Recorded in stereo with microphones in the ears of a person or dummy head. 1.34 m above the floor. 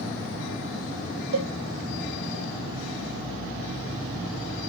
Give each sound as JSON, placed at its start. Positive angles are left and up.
{"t": 1.3, "sound": "a cowbell", "side_deg": -65, "distance_m": 0.7}